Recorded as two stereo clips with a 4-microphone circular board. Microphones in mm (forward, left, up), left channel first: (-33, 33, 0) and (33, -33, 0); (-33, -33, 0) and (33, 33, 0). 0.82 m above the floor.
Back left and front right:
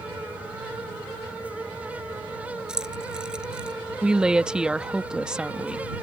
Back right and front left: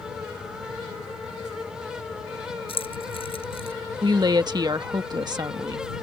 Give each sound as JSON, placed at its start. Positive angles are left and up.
{"t": 2.7, "sound": "keys jangling", "azimuth_deg": -125}
{"t": 4.0, "sound": "a woman speaking", "azimuth_deg": 35}